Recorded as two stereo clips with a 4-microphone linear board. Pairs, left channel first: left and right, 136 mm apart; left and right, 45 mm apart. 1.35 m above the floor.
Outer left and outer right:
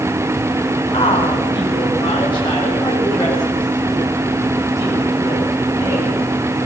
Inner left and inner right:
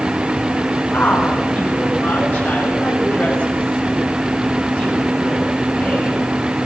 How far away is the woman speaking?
About 4.5 m.